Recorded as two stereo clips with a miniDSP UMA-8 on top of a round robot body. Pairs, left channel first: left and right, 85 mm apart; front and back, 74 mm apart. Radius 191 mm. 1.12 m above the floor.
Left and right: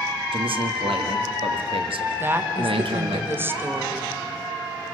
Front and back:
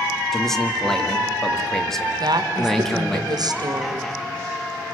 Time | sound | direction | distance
0.3 | a man speaking | 85° right | 2 m
2.2 | a woman speaking | 155° right | 2.0 m